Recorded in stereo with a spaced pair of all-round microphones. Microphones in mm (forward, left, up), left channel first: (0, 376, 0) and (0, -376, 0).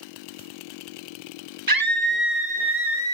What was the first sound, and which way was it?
A scream, 25° right (ahead or behind).